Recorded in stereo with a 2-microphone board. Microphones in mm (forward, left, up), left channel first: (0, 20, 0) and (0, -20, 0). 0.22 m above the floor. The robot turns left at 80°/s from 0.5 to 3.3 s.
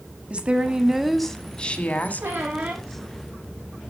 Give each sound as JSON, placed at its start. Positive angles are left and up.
{"t": 0.3, "sound": "a woman speaking", "azimuth_deg": -130, "distance_m": 1.3}
{"t": 2.2, "sound": "a squeak", "azimuth_deg": -105, "distance_m": 2.5}